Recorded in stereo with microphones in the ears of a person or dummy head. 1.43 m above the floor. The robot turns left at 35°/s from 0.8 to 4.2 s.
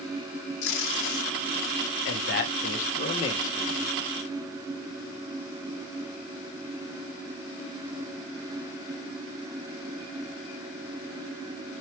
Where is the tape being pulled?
70° left (ahead or behind), 0.9 m.